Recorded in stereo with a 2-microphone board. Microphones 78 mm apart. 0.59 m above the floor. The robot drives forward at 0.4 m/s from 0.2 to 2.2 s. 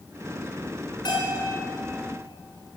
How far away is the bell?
About 4 m.